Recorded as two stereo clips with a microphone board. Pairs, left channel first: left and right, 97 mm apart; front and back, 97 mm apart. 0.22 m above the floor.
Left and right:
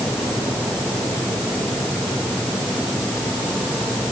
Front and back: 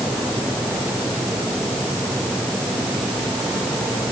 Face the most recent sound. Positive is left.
No sound to turn to.